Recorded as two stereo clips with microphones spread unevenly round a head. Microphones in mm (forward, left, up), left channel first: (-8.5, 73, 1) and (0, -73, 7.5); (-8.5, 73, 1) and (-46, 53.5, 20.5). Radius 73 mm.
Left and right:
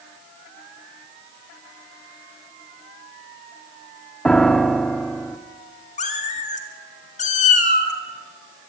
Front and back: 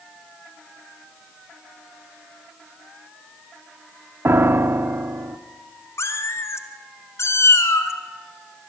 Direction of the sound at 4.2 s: Straight behind.